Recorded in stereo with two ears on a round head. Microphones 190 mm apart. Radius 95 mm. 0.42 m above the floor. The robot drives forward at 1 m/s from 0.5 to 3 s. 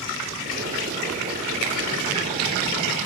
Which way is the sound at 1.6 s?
70° right (ahead or behind).